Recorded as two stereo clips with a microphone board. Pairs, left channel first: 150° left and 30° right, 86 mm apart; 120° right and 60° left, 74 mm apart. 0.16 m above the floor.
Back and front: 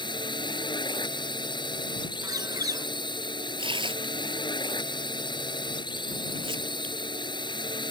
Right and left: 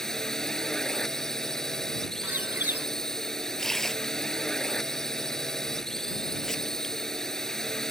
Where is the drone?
155° left.